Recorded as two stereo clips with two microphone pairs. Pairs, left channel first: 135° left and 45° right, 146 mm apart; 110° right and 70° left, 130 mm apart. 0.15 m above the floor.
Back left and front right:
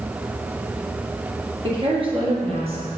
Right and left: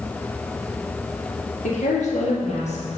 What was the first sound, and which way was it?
A woman speaking, 100° right.